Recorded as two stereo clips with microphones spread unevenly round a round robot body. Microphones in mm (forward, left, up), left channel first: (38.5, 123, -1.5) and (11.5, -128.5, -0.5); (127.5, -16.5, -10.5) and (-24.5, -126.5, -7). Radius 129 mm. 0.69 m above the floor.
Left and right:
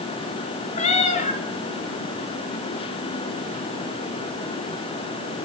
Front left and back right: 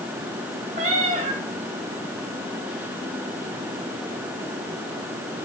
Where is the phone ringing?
No phone ringing in this recording.